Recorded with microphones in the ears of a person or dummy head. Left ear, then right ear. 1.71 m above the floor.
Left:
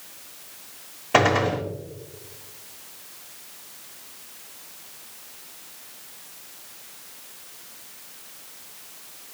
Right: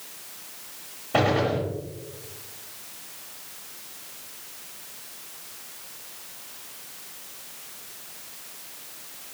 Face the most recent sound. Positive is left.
turn(degrees=55)  # may be behind; listen again after turning